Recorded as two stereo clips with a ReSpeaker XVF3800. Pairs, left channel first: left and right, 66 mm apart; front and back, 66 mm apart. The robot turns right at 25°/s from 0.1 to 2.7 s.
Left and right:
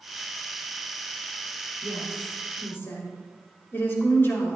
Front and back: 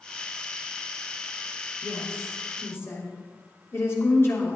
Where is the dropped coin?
No dropped coin in this recording.